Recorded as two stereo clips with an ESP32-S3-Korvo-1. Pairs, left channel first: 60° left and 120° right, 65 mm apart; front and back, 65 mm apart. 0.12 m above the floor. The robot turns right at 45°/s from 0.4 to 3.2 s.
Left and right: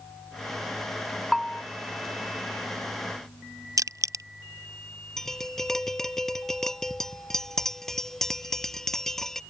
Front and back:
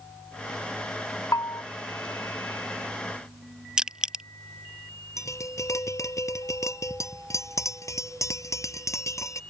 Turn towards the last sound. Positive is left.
turn(degrees=-20)